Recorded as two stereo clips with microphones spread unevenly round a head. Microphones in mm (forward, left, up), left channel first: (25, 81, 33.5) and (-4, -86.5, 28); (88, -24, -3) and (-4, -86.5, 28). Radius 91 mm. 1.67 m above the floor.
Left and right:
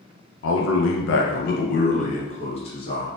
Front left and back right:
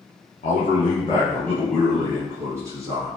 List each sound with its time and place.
0.4 s a man speaking: 70° left, 0.6 m; by 3.1 s 145° left, 1.5 m